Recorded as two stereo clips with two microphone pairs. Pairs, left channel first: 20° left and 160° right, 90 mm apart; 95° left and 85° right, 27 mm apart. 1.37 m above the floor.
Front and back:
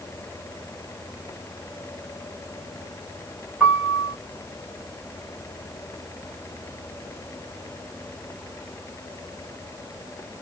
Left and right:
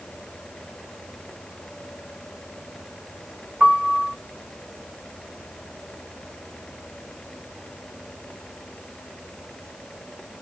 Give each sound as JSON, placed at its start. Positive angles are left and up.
{"t": 3.6, "sound": "a piano", "azimuth_deg": -90, "distance_m": 1.5}